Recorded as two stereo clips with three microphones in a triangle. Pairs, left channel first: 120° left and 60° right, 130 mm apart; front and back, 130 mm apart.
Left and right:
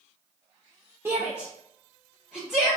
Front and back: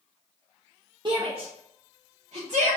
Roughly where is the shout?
Behind right.